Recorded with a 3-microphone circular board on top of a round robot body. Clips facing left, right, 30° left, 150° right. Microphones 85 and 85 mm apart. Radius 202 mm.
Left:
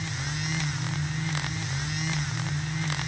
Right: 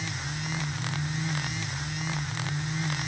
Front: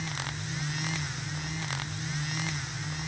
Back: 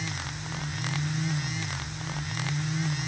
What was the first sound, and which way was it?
Only background noise.